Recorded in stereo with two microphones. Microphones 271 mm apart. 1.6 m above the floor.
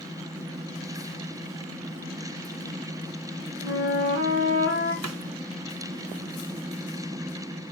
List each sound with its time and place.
3.6 s a flute: 55° left (ahead or behind), 2.5 m
5.0 s a snare drum: 90° right, 0.6 m